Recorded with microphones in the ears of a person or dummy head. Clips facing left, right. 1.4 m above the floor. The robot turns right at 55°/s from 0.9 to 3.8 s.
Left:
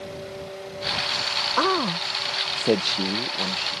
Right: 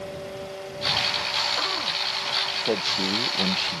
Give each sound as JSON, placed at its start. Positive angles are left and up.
{"t": 1.6, "sound": "a man speaking", "azimuth_deg": 85}